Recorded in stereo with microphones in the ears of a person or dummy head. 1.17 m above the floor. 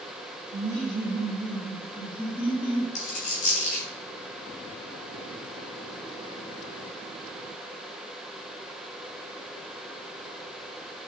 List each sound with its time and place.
0.5 s laughter: 70° right (ahead or behind), 2 m; by 2.9 s 5° right (ahead or behind), 3 m
3.0 s a dropped coin: 40° left (ahead or behind), 3.5 m